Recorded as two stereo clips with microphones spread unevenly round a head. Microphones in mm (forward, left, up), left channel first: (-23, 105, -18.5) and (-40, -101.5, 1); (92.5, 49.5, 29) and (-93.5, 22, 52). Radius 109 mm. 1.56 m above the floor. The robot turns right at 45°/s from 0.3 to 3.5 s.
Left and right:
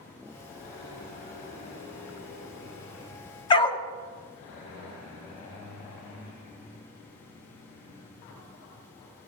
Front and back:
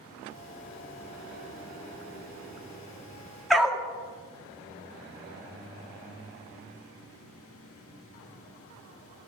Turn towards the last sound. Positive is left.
turn(degrees=120)